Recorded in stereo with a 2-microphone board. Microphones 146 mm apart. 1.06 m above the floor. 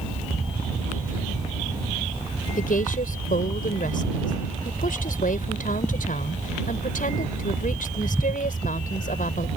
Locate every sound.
2.6 s a woman speaking: 85° left